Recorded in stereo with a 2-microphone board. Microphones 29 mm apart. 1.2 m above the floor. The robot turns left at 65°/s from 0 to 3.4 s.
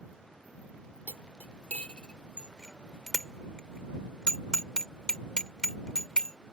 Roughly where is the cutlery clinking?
Left.